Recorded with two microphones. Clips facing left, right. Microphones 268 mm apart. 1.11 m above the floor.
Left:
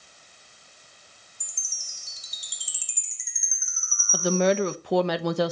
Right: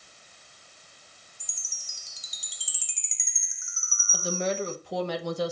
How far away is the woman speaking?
About 1.0 m.